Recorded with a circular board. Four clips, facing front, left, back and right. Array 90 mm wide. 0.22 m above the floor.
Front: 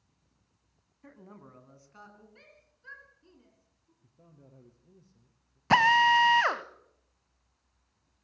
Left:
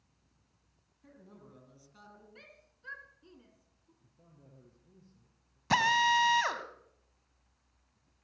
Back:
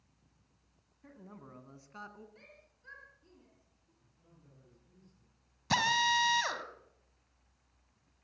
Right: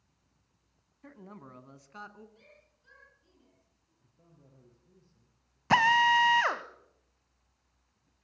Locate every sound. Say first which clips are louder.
1.0 s a man speaking: right 7 dB, front 1 dB; 65° right, 1.9 m; by 2.2 s 120° right, 2.5 m
2.4 s a shout: left 2 dB, even; 70° left, 3.5 m
4.0 s a man speaking: even, front 7 dB; 5° left, 5 m
5.7 s a drill: right 4 dB, front 9 dB; 25° right, 1.2 m